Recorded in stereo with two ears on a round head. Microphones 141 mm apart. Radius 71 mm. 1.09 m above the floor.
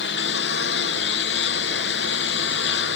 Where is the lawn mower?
90° left; by 3.0 s 85° left.